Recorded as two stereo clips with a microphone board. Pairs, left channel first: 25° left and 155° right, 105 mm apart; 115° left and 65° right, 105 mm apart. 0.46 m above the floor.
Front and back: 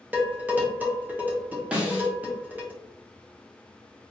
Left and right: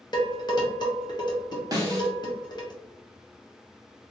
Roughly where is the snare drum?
Right.